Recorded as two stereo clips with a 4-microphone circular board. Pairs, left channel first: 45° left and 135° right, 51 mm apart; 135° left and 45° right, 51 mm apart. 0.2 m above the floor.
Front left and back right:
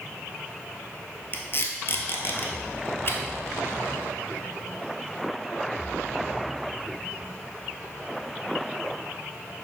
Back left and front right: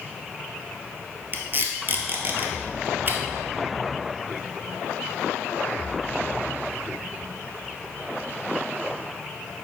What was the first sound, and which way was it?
Tape being pulled, 5° left.